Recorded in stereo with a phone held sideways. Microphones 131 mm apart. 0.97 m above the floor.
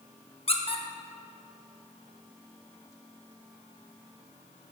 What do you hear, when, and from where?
0.5 s a squeak: 45° left (ahead or behind), 0.7 m